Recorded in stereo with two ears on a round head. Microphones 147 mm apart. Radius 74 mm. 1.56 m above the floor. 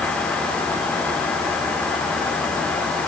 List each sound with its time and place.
Only background noise.